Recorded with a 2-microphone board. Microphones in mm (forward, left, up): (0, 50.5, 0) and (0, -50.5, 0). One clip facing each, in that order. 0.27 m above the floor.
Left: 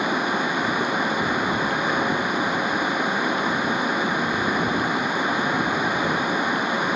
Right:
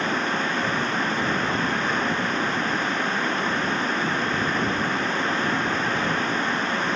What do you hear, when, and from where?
0.0 s running water: 10° left (ahead or behind)